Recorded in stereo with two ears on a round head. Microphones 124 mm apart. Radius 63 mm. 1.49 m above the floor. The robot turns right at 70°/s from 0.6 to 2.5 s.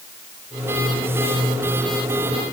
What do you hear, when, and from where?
Only background noise.